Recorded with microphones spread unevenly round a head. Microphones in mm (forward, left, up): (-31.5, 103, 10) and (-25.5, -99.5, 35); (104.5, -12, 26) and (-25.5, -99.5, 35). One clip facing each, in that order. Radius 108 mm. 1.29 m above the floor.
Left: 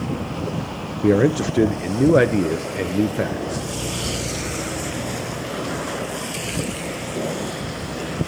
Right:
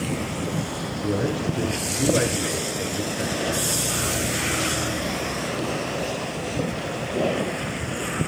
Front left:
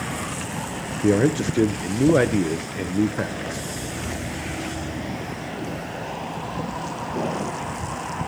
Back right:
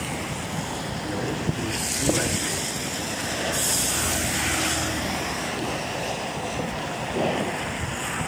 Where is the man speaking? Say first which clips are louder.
Left 9 dB, front left 11 dB; 55° left, 0.6 m.